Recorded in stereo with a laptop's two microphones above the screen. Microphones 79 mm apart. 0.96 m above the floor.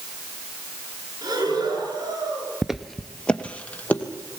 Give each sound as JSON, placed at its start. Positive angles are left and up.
{"t": 1.2, "sound": "breathing", "side_deg": -60, "distance_m": 9.5}
{"t": 2.6, "sound": "footsteps", "side_deg": -5, "distance_m": 0.9}